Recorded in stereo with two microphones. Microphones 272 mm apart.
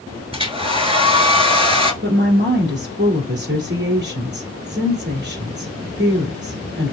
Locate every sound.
0.3 s a hair dryer: 20° right (ahead or behind), 0.7 m
2.0 s a woman speaking: 45° right (ahead or behind), 1.7 m